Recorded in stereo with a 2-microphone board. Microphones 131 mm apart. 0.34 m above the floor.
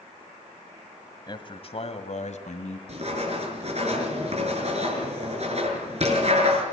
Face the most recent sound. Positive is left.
turn(degrees=-55)  # may be behind; listen again after turning